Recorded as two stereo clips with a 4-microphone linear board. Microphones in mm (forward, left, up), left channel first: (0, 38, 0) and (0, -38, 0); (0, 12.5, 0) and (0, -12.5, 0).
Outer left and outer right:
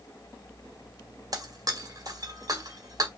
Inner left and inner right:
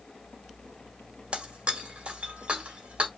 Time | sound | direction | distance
1.3 | breaking glass | 55° right (ahead or behind) | 1.7 m